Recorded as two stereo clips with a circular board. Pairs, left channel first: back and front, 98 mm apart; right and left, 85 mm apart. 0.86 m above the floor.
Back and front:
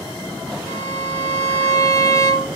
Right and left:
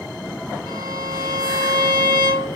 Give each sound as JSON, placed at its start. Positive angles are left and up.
{"t": 0.7, "sound": "a violin", "azimuth_deg": -125, "distance_m": 1.8}